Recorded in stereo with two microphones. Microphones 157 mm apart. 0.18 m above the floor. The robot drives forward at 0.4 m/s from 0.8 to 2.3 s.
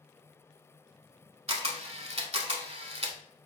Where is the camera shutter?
45° right (ahead or behind), 0.6 m.